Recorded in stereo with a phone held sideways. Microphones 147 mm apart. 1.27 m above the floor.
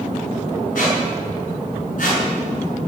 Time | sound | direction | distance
0.8 | a squeak | 65° left (ahead or behind) | 6 m